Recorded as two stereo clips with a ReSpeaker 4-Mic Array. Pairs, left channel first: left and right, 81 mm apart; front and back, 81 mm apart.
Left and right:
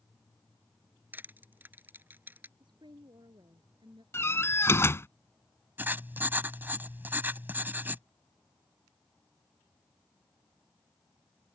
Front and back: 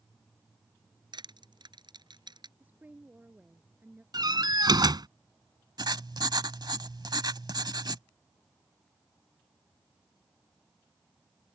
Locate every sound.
1.1 s crushing: 155° right
2.6 s a woman speaking: 110° right
4.1 s a door slam: 150° left
5.8 s writing: 155° right